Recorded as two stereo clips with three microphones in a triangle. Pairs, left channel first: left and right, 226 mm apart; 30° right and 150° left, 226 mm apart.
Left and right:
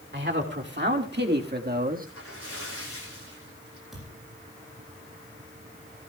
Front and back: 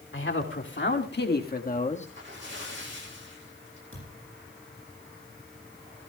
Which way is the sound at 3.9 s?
Straight behind.